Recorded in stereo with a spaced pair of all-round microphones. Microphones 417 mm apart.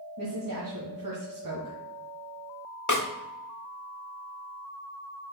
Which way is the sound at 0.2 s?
50° right (ahead or behind).